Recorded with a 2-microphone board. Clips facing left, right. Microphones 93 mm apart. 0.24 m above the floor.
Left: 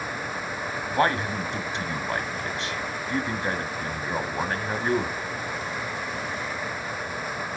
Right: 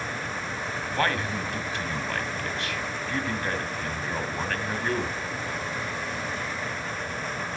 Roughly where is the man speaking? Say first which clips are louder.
Left 4 dB; left.